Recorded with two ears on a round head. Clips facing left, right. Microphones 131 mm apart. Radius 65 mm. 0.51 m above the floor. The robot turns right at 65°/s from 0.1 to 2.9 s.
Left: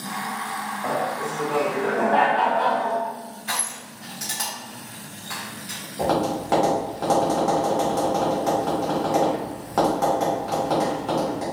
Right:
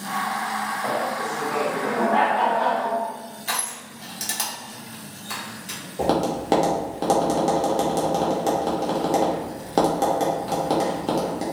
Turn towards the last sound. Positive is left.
turn(degrees=-35)  # may be behind; listen again after turning